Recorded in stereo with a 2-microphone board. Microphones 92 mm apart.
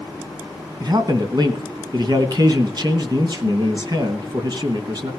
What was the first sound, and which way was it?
A man speaking, 50° right (ahead or behind).